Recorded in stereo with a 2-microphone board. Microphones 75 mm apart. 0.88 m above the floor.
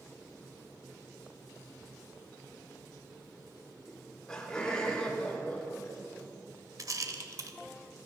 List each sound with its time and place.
3.9 s laughter: 5° left (ahead or behind), 2.5 m; by 6.3 s 15° left (ahead or behind), 4.5 m
6.8 s a rattle: 50° right (ahead or behind), 1.0 m